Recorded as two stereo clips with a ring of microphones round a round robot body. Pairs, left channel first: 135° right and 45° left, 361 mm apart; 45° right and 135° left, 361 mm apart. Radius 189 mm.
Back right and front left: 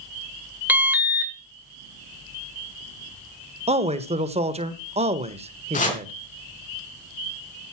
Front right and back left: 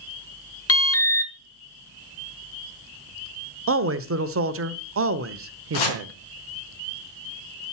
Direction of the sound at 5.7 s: 65° right.